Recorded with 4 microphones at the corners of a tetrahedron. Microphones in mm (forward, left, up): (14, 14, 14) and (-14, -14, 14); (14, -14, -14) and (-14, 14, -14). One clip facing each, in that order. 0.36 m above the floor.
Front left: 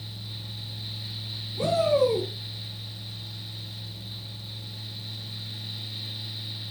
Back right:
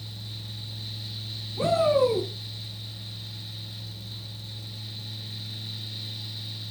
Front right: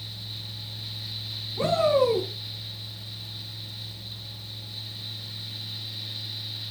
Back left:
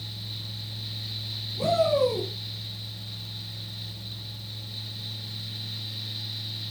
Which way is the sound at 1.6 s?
80° right.